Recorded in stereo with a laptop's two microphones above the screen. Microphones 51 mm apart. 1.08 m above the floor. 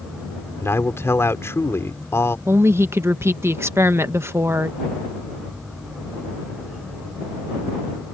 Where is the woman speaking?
60° right (ahead or behind).